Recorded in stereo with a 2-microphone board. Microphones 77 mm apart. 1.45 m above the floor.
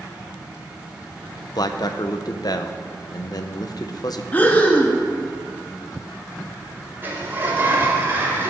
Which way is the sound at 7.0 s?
30° right (ahead or behind).